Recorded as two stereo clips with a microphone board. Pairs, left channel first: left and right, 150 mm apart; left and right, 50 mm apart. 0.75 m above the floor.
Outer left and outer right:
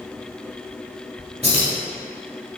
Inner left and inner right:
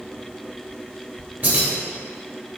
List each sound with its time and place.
1.4 s keys jangling: 40° right (ahead or behind), 1.3 m